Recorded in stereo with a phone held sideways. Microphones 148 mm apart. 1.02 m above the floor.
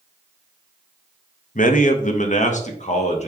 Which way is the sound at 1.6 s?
60° left (ahead or behind).